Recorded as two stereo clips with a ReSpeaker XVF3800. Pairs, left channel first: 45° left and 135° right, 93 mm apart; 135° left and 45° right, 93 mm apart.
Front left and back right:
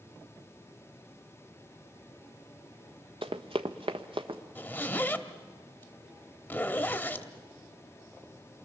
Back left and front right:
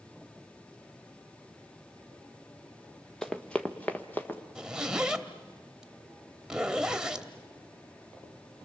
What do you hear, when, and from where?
3.2 s running footsteps: 140° right, 1.2 m; by 4.4 s 155° right, 1.9 m
4.5 s a zipper: 20° left, 0.9 m